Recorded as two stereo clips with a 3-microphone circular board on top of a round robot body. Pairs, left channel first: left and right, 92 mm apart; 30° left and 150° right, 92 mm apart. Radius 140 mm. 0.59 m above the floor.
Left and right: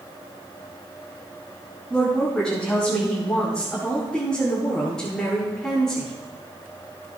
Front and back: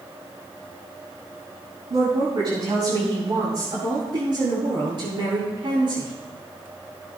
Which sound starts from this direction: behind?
A woman speaking, at 1.9 s.